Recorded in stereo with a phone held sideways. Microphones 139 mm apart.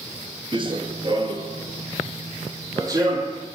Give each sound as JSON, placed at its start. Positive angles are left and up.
{"t": 0.5, "sound": "running footsteps", "side_deg": -40, "distance_m": 1.0}